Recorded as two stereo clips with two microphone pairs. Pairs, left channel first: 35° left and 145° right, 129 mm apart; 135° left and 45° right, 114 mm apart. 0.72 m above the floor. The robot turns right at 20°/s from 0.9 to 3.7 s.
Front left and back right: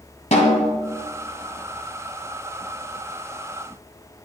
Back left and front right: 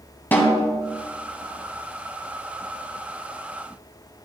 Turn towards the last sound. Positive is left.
turn(degrees=115)